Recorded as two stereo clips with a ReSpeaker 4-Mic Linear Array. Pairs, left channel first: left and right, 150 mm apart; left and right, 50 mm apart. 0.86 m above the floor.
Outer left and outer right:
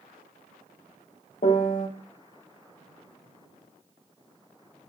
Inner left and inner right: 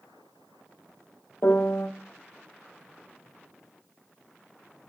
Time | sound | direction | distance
1.4 | a piano | 60° left (ahead or behind) | 0.7 m